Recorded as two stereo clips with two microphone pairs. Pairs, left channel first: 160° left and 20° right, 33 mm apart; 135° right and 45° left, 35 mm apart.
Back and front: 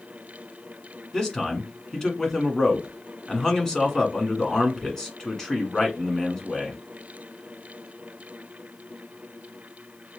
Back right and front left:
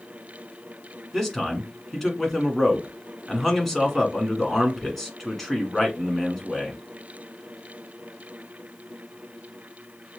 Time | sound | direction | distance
1.1 | a man speaking | 160° left | 1.5 m